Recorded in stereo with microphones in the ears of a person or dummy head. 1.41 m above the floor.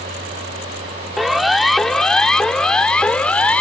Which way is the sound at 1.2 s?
Centre (ahead or behind).